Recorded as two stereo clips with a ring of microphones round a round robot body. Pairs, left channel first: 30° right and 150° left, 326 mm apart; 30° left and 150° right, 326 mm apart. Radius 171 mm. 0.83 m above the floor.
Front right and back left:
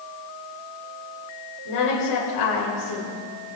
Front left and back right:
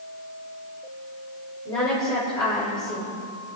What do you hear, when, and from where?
1.6 s a woman speaking: 50° right, 3.5 m